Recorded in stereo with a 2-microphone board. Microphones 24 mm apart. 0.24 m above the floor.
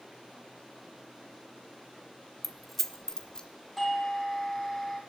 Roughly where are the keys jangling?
Centre.